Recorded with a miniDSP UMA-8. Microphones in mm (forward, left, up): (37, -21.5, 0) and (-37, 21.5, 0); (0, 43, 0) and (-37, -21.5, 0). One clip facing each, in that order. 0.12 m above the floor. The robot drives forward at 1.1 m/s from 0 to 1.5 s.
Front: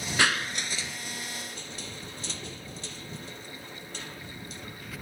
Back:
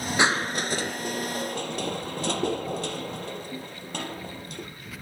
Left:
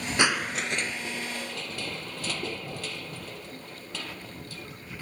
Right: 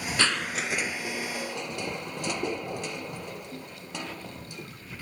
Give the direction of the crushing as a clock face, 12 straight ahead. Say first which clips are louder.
Back 3 dB, left 2 dB; 8 o'clock.